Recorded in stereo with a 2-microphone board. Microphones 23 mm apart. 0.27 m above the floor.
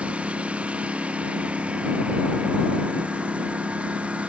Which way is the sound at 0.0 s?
70° right (ahead or behind).